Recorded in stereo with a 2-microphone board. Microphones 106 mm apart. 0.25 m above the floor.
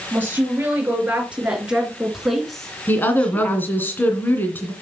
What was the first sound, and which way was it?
A woman speaking, 20° right (ahead or behind).